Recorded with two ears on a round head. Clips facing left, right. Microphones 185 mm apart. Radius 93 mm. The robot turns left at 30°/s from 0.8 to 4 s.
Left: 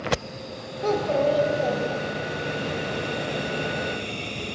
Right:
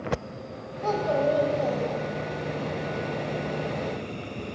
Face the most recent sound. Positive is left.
turn(degrees=-20)